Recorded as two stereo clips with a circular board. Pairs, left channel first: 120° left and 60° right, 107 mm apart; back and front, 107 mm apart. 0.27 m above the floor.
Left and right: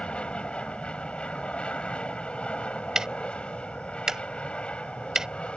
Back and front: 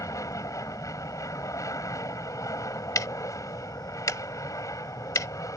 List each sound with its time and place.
0.0 s an aircraft: 170° right
3.0 s ticking: 140° right